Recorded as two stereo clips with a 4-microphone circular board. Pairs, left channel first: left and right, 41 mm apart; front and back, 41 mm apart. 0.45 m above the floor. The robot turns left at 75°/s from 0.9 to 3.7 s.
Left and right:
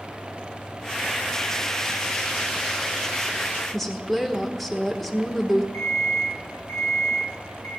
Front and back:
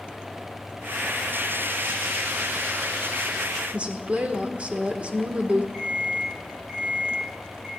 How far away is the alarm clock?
About 5 m.